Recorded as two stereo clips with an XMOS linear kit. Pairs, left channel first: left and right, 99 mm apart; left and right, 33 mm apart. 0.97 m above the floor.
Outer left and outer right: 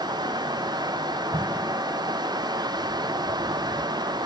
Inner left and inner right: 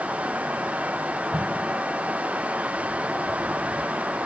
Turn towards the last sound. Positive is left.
turn(degrees=-45)  # may be behind; listen again after turning